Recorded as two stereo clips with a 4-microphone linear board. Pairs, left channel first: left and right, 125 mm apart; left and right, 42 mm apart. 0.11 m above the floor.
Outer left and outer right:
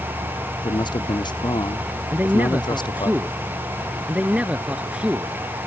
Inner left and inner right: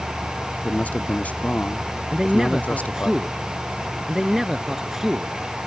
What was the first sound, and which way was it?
A man speaking, 40° left (ahead or behind).